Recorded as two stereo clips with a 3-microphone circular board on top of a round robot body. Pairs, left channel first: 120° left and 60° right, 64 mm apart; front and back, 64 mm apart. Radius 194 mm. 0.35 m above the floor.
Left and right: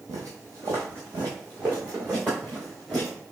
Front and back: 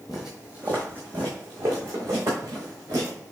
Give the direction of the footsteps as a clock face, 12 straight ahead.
3 o'clock.